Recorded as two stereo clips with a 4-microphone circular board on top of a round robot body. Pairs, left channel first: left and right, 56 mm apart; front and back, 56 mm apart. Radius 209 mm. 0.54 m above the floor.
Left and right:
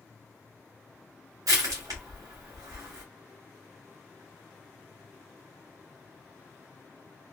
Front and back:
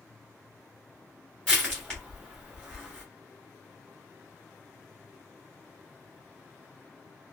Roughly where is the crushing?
Right.